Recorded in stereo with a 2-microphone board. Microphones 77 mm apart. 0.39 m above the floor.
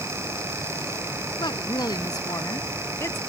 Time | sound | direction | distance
1.4 | a woman speaking | 70° left (ahead or behind) | ?